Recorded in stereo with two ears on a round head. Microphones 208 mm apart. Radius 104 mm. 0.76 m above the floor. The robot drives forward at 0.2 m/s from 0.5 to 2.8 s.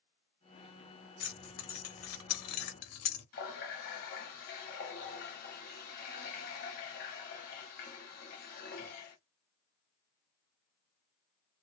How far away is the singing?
I don't hear singing.